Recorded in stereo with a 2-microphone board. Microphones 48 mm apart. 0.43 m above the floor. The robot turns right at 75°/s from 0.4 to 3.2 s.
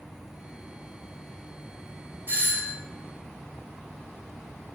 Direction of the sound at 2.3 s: 55° right.